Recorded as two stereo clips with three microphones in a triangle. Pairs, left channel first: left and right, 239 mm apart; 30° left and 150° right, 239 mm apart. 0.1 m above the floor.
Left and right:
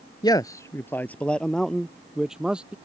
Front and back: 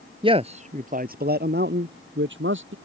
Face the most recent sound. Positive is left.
turn(degrees=-175)